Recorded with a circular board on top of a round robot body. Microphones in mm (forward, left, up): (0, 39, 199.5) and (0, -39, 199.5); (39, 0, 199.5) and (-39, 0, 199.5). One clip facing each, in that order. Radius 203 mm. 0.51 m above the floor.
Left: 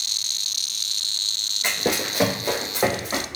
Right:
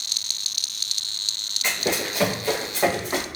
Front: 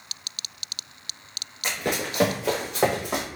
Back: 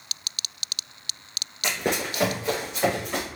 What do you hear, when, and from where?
1.6 s running footsteps: 155° left, 0.6 m; by 3.2 s 10° left, 2 m